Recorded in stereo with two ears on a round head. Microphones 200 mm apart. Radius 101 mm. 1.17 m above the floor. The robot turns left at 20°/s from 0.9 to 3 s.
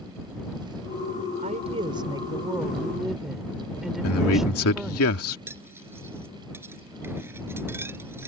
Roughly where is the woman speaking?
Behind right.